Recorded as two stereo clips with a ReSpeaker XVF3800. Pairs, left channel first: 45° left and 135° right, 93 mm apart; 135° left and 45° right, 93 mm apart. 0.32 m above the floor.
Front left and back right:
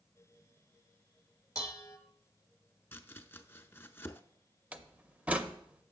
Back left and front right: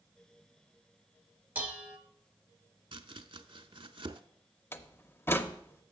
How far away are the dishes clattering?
About 0.8 m.